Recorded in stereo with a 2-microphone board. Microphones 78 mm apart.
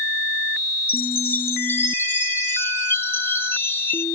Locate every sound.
0.9 s a chime: 30° left (ahead or behind), 1.0 m